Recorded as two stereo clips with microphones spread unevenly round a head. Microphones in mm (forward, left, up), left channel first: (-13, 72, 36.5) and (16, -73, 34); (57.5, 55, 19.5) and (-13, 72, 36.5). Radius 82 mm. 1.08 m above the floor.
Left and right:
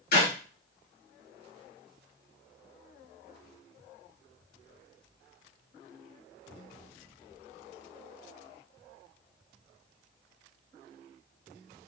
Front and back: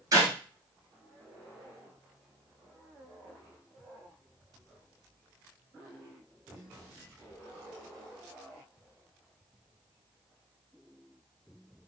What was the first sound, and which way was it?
A clap, 125° left.